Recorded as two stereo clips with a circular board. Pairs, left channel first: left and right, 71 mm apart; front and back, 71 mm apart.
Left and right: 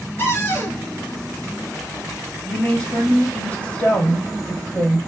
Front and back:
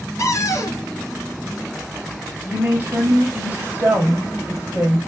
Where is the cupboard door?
35° left, 1.5 m.